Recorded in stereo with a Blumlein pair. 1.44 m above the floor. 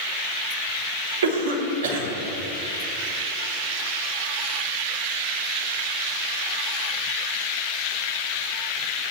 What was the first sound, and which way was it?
A cough, 65° right.